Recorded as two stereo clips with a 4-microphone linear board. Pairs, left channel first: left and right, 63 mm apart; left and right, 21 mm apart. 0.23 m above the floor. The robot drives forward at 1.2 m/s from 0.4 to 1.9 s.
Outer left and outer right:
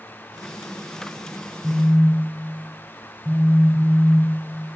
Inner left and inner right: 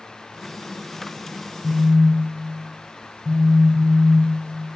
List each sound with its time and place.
1.6 s a phone buzzing: 10° right (ahead or behind), 2.5 m